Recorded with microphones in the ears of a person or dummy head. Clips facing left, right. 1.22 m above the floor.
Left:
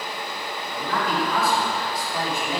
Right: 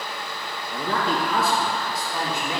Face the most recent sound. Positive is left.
turn(degrees=-20)  # may be behind; listen again after turning